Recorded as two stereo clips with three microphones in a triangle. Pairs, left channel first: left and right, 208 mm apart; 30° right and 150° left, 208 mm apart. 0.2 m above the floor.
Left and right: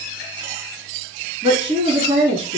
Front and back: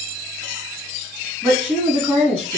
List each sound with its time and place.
1.4 s a woman speaking: 120° right, 1.7 m